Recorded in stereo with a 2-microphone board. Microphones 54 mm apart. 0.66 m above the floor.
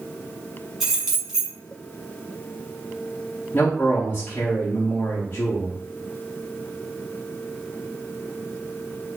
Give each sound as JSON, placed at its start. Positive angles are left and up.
{"t": 0.8, "sound": "keys jangling", "side_deg": -5, "distance_m": 1.7}
{"t": 3.5, "sound": "a man speaking", "side_deg": 35, "distance_m": 1.0}